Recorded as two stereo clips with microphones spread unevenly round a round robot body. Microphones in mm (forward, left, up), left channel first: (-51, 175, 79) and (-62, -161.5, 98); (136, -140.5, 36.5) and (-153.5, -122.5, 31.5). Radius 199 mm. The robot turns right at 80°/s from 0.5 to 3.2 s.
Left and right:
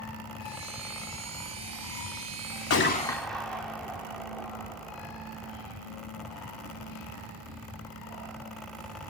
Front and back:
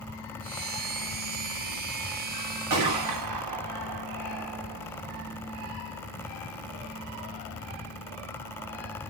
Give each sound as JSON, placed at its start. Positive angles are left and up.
{"t": 2.7, "sound": "a gunshot", "azimuth_deg": 135, "distance_m": 0.6}